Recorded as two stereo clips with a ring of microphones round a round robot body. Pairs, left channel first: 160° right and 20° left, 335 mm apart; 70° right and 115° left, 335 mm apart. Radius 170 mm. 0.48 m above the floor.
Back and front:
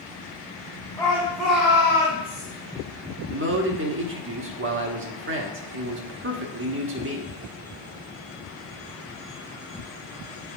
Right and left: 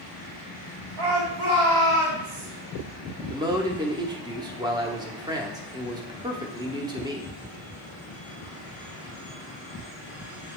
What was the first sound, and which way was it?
A shout, 120° left.